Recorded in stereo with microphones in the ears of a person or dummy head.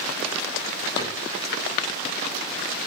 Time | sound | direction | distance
1.0 | a cupboard door | 25° left (ahead or behind) | 6.5 m